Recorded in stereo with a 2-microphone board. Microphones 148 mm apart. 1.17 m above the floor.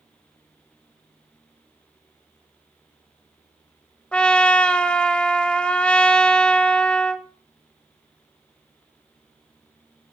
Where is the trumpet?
5° left (ahead or behind), 0.9 m.